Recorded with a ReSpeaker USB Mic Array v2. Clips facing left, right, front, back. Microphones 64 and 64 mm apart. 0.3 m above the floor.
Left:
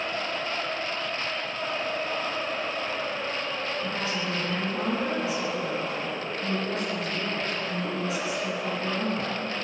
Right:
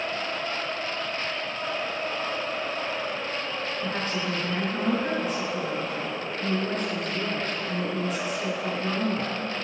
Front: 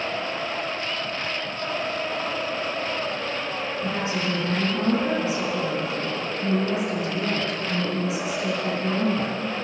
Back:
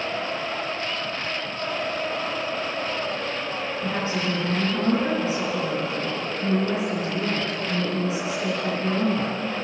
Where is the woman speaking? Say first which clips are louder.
Right 1 dB, back 1 dB; 130° right, 4 m.